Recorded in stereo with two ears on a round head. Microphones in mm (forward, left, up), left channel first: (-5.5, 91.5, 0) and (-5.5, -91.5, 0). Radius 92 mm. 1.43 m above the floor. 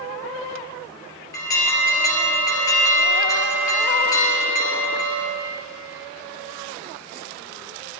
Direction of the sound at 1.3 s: 20° left (ahead or behind).